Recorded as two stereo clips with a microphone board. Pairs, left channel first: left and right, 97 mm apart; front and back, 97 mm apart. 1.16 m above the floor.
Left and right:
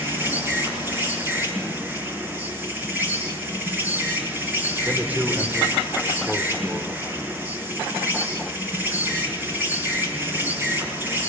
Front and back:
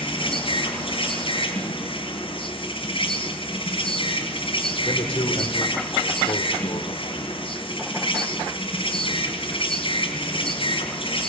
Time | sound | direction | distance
0.0 | an insect | 20° right | 6.5 m
4.8 | a man speaking | 15° right | 3 m